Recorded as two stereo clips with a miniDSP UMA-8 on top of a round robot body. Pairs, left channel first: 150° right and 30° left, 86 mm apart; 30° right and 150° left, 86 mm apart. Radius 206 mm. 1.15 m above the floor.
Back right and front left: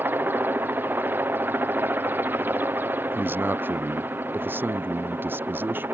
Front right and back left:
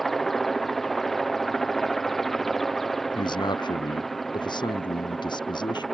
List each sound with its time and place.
0.0 s a helicopter: 55° left
3.1 s a man speaking: 30° right